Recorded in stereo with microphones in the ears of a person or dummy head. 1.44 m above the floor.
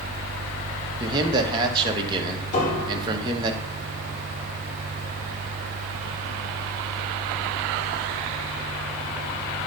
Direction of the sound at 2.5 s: 45° left (ahead or behind).